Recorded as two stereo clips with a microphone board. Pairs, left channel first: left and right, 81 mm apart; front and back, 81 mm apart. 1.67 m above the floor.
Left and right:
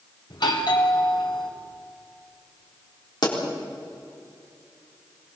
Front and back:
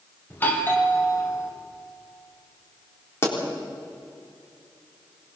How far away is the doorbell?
About 2.5 m.